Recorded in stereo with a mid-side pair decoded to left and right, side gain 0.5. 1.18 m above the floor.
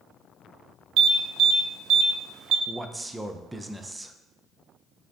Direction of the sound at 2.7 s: 15° right.